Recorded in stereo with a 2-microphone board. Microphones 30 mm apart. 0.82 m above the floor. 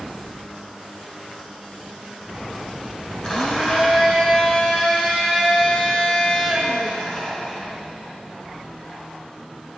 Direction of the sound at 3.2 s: 30° left (ahead or behind).